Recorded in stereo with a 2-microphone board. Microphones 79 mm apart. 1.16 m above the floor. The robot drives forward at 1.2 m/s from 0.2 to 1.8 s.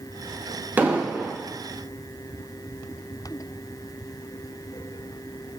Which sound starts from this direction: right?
An explosion, at 0.8 s.